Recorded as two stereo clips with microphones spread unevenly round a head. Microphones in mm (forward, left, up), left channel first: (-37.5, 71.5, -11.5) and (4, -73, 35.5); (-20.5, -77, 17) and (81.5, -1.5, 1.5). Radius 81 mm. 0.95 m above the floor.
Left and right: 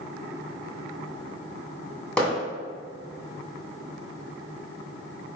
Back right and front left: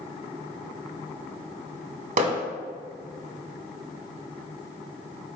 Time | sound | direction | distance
2.2 | hammering | 15° left | 1.9 m